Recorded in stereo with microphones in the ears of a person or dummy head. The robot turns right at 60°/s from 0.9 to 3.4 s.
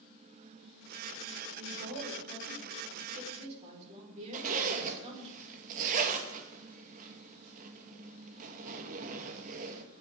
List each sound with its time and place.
1.6 s a woman speaking: 145° right, 5 m; by 5.3 s 35° right, 5 m
4.3 s a zipper: 45° right (ahead or behind), 1.6 m